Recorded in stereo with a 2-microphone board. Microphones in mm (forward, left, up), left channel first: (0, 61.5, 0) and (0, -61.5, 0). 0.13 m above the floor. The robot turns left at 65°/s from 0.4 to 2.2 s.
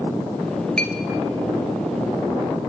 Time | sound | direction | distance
0.8 | a clink | 5° left (ahead or behind) | 1.2 m